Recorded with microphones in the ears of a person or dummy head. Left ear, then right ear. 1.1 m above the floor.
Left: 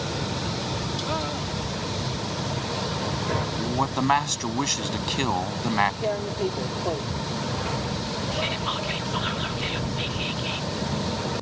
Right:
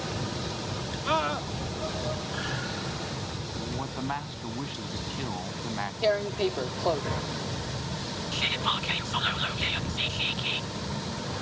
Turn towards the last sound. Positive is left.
turn(degrees=-25)  # may be behind; listen again after turning